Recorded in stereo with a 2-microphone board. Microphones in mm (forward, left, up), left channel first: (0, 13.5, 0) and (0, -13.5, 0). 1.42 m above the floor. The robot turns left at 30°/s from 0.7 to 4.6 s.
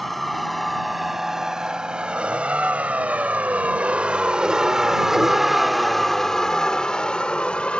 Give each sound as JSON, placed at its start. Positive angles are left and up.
{"t": 0.0, "sound": "a vehicle", "side_deg": 5}